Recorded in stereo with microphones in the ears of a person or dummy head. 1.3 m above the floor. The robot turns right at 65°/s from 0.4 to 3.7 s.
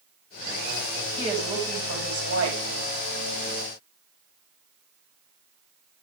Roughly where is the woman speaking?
Behind right.